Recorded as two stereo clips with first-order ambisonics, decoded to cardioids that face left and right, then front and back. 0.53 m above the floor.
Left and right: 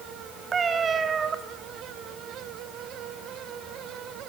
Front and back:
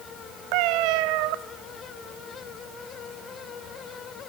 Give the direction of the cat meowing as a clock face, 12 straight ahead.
5 o'clock.